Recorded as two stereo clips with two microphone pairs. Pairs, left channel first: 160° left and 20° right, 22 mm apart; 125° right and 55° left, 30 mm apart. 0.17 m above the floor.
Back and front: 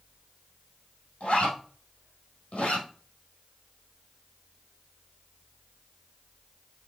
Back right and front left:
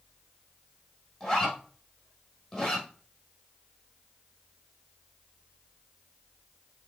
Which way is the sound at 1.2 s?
170° left.